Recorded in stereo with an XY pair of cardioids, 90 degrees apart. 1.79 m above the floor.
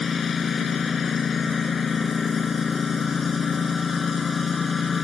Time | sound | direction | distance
0.0 | a lawn mower | 50° left | ?